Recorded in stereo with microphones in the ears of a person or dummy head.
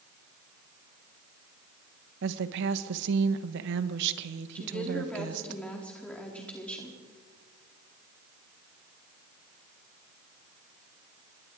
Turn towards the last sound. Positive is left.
turn(degrees=5)  # may be behind; listen again after turning